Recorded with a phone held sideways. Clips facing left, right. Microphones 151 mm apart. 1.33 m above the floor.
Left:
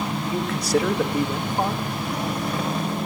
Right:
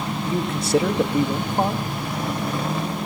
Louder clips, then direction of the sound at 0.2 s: Right 5 dB; 25° right (ahead or behind).